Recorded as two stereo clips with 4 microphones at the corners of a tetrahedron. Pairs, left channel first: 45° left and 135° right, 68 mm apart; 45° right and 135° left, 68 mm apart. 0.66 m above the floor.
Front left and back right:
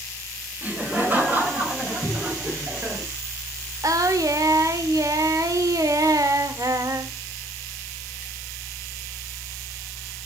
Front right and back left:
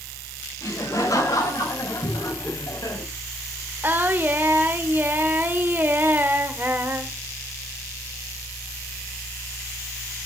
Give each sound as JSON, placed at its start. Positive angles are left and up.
{"t": 0.6, "sound": "laughter", "azimuth_deg": -70, "distance_m": 3.5}
{"t": 2.0, "sound": "a cupboard door", "azimuth_deg": -70, "distance_m": 4.5}
{"t": 3.8, "sound": "singing", "azimuth_deg": -170, "distance_m": 1.1}